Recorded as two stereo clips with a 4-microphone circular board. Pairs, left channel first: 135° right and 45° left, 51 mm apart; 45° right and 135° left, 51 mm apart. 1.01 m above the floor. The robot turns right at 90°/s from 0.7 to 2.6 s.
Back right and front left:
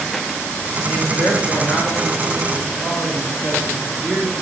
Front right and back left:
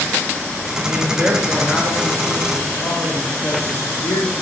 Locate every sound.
0.8 s a man speaking: 170° left, 2 m; by 4.3 s 30° right, 2 m